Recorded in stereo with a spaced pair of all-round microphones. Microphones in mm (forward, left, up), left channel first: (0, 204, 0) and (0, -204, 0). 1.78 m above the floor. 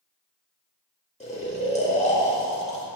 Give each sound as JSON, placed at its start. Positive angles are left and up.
{"t": 1.2, "sound": "snoring", "side_deg": 15, "distance_m": 2.0}